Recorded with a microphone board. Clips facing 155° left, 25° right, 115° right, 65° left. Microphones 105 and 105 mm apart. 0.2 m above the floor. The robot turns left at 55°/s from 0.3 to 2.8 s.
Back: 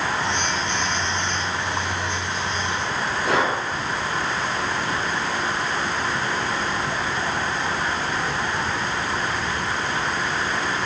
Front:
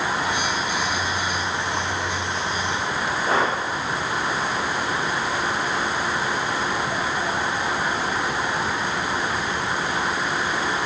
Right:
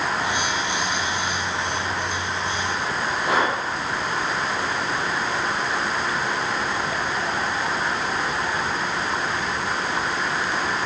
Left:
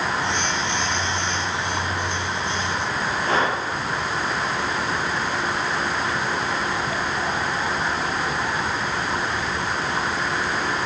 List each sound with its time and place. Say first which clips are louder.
3.2 s breathing: back 1 dB, even; 170° left, 4 m